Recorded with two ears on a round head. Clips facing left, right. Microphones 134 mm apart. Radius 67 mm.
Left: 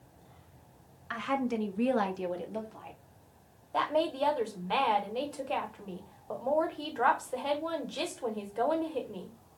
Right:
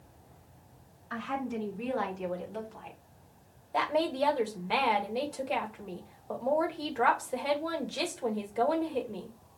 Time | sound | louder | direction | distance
1.1 | a woman speaking | left 3 dB | 80° left | 1.2 m
3.7 | a woman speaking | right 1 dB | 10° right (ahead or behind) | 0.9 m